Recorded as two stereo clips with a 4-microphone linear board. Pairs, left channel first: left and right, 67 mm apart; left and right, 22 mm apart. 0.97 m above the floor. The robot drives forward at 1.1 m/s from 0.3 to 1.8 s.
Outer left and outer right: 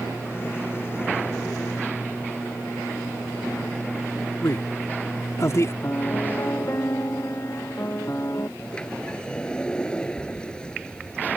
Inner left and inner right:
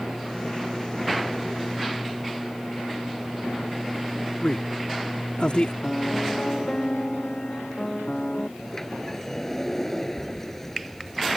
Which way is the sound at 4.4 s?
45° left (ahead or behind).